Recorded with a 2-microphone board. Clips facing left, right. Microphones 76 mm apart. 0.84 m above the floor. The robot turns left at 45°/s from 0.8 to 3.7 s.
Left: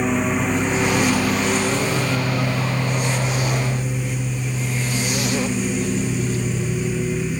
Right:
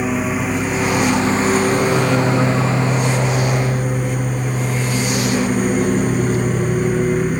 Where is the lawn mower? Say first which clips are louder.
Right 1 dB; 5° right; by 7.4 s 135° right.